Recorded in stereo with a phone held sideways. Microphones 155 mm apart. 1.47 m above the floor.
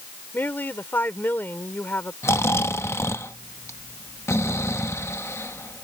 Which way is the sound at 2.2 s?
20° left (ahead or behind).